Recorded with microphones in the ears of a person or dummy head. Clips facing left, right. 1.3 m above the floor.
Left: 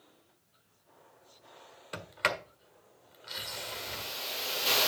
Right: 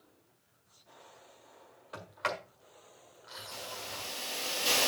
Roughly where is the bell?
No bell in this recording.